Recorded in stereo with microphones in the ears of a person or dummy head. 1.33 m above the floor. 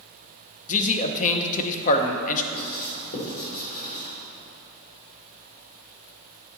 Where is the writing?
55° left (ahead or behind), 3.5 m.